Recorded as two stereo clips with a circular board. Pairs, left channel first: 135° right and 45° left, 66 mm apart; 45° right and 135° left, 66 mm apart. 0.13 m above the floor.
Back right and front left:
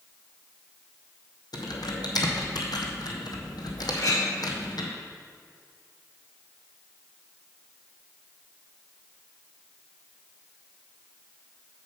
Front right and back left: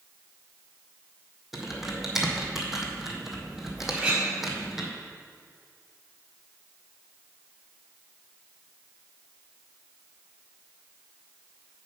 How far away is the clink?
About 2.5 m.